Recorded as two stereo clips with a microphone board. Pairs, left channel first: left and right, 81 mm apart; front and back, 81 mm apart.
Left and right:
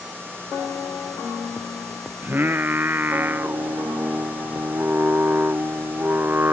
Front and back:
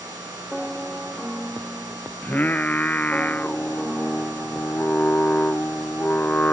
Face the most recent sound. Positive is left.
turn(degrees=-50)